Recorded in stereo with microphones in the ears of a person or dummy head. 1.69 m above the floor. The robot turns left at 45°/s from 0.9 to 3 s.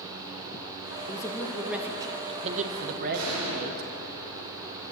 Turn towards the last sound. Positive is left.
turn(degrees=-80)